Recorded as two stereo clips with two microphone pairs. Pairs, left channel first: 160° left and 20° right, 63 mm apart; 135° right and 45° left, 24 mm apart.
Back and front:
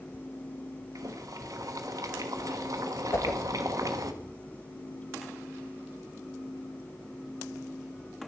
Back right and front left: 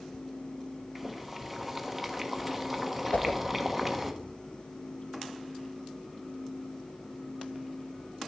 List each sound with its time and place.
0.9 s boiling: 40° right, 1.0 m
3.1 s a whoosh: 155° right, 1.1 m